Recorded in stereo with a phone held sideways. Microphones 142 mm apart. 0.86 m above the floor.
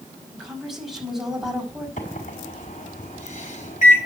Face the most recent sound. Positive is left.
turn(degrees=65)  # may be behind; listen again after turning